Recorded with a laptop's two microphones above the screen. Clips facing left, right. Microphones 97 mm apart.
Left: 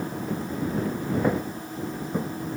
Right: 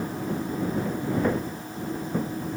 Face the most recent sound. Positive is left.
turn(degrees=5)  # may be behind; listen again after turning